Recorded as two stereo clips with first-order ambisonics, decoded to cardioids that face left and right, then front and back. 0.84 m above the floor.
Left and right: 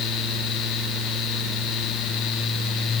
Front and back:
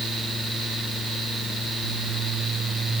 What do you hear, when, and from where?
Only background noise.